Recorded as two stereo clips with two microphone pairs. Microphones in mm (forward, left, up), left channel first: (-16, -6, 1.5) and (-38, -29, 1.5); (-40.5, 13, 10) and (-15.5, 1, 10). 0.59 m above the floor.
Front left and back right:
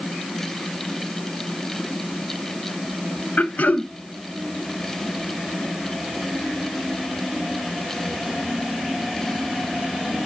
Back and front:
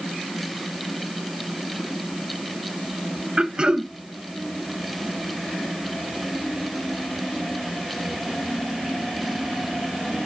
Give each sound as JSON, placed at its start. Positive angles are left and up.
{"t": 3.4, "sound": "throat clearing", "azimuth_deg": 30, "distance_m": 0.5}